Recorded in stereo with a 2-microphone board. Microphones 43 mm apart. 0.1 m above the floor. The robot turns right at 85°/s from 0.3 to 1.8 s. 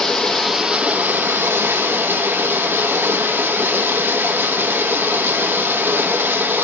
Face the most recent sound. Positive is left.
turn(degrees=-65)